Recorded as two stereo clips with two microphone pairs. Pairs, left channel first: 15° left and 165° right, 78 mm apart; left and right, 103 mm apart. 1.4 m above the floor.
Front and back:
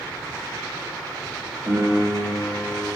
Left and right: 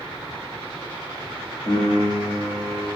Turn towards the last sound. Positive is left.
turn(degrees=130)